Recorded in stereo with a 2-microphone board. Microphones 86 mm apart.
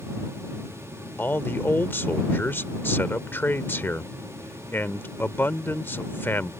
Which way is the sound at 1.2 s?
25° left (ahead or behind).